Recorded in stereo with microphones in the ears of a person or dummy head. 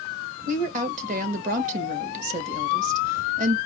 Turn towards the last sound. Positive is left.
turn(degrees=-40)  # may be behind; listen again after turning